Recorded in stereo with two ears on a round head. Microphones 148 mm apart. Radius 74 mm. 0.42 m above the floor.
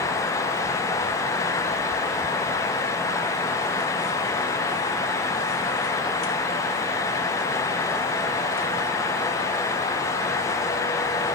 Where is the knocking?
I don't hear knocking.